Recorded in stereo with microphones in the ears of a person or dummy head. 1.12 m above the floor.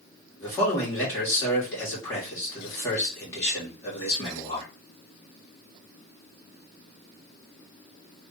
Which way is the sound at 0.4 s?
15° left (ahead or behind).